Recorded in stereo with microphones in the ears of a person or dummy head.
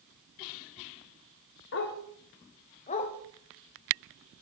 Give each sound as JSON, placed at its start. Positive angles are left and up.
{"t": 1.7, "sound": "a dog barking", "side_deg": 50, "distance_m": 1.2}